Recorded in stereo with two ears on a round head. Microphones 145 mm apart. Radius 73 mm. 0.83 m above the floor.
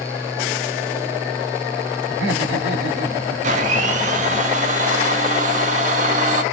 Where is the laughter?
80° right, 2 m.